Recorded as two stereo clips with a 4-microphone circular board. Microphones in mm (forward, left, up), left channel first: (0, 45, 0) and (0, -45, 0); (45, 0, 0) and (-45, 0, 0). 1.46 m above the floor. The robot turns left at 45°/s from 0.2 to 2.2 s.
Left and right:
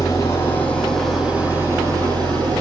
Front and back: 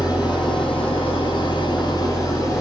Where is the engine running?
40° left, 7 m; by 2.6 s 50° right, 7 m.